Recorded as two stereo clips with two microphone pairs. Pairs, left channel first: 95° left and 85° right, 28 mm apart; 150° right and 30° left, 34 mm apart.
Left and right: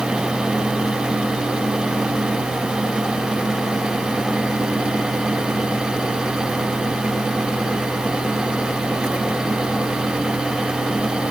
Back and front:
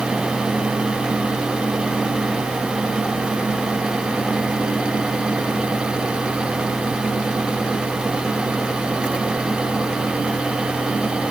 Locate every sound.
Only background noise.